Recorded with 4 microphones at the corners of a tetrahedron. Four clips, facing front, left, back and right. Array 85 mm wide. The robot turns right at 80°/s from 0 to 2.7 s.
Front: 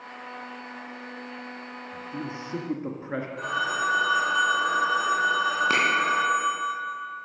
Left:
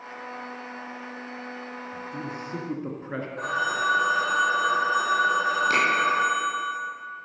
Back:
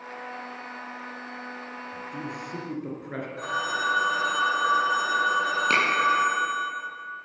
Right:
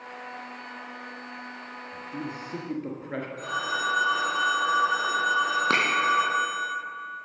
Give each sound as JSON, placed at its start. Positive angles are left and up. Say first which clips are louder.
{"t": 1.9, "sound": "a man speaking", "louder": "right 1 dB, front 2 dB", "azimuth_deg": -45, "distance_m": 1.1}
{"t": 3.4, "sound": "a phone ringing", "louder": "left 4 dB, even", "azimuth_deg": 105, "distance_m": 4.0}
{"t": 5.7, "sound": "a finger snap", "louder": "left 1 dB, back 2 dB", "azimuth_deg": -90, "distance_m": 3.0}